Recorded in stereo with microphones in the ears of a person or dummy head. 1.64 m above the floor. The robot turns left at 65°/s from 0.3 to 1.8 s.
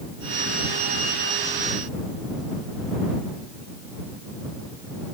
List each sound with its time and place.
Only background noise.